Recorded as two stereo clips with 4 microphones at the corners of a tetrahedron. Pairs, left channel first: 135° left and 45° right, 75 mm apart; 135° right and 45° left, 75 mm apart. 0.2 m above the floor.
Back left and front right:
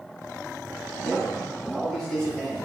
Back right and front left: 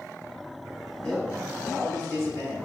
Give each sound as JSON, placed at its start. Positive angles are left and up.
{"t": 1.0, "sound": "a man speaking", "azimuth_deg": -150, "distance_m": 1.9}